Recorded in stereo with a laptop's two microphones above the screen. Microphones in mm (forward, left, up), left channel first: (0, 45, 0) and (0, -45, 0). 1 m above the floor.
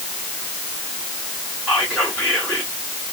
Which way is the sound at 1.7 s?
15° left (ahead or behind).